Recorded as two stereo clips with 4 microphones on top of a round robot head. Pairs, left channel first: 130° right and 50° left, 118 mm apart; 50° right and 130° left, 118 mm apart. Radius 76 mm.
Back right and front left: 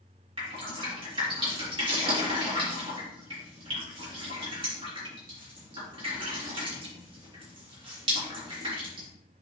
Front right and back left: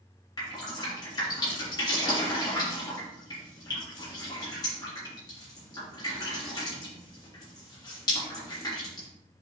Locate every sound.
0.4 s dripping: 5° left, 3 m